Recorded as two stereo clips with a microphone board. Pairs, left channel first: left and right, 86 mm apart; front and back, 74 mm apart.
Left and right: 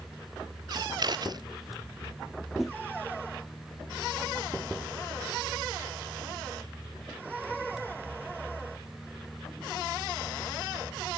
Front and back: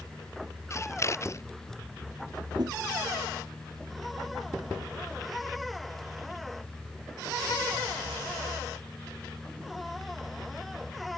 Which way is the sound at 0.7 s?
50° right.